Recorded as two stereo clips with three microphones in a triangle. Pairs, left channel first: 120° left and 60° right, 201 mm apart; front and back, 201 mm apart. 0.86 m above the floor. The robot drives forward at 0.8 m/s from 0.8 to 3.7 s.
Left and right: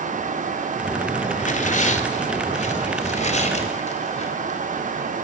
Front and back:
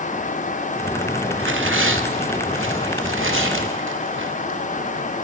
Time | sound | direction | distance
1.4 | tearing paper | 170° left | 1.8 m